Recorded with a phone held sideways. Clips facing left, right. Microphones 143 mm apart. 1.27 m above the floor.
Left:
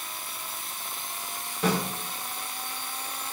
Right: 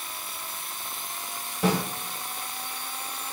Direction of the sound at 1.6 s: 10° right (ahead or behind).